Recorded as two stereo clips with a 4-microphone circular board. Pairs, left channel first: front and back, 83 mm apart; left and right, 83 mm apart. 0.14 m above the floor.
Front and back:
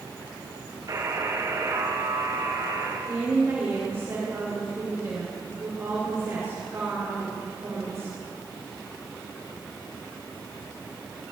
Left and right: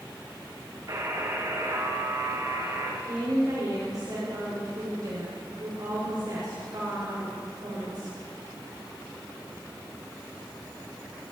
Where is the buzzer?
135° right, 5 m.